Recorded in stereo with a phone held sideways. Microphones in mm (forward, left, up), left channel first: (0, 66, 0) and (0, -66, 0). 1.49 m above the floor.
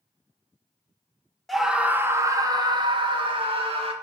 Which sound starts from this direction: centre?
A scream, at 1.5 s.